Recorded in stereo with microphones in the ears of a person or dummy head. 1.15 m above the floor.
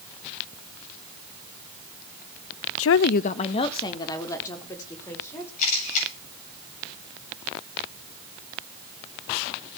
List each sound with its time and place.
2.8 s a woman speaking: 80° left, 0.5 m; by 5.5 s 20° left (ahead or behind), 3.5 m
5.6 s a camera shutter: 55° left (ahead or behind), 8 m